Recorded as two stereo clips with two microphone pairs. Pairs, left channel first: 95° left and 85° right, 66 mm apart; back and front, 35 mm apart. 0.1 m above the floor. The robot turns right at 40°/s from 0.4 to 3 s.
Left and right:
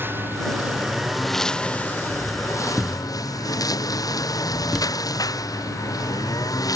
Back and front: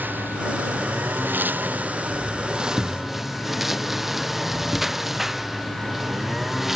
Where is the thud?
5° left; by 5.0 s 15° left.